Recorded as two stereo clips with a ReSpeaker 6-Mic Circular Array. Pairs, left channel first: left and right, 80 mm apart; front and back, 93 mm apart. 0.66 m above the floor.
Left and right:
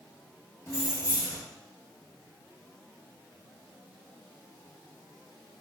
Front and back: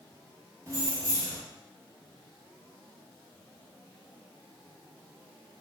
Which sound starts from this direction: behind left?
Keys jangling, at 0.7 s.